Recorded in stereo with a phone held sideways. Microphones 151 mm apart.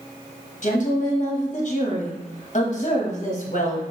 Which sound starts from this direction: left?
A woman speaking, at 0.6 s.